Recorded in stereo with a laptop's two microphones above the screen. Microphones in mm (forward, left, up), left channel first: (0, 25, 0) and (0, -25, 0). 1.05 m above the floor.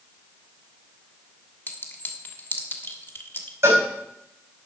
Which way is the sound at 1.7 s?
45° left (ahead or behind).